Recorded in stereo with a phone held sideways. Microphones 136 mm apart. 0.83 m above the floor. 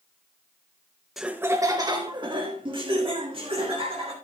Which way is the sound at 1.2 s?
5° right (ahead or behind).